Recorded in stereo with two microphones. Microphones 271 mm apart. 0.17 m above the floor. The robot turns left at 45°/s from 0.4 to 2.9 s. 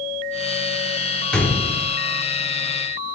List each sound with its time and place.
1.3 s a gunshot: 5° left (ahead or behind), 1.5 m; by 2.0 s 30° left (ahead or behind), 1.5 m